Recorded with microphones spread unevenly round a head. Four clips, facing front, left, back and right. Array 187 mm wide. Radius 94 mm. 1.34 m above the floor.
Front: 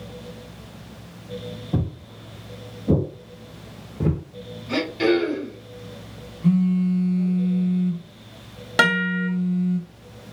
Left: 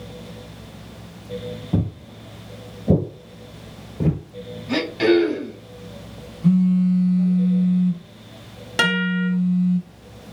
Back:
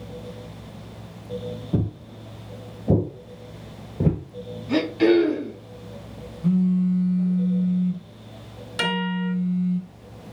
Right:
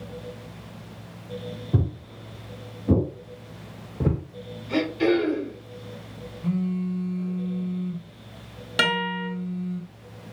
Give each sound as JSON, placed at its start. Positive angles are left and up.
{"t": 1.7, "sound": "footsteps", "azimuth_deg": 85, "distance_m": 1.9}
{"t": 4.7, "sound": "throat clearing", "azimuth_deg": 70, "distance_m": 2.0}
{"t": 6.4, "sound": "a phone buzzing", "azimuth_deg": 50, "distance_m": 1.3}
{"t": 8.8, "sound": "a guitar", "azimuth_deg": 10, "distance_m": 1.0}